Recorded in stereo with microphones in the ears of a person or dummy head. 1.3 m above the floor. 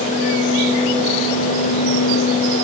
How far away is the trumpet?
I don't hear a trumpet.